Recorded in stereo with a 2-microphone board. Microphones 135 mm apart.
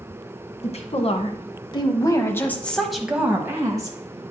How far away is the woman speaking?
About 1.6 m.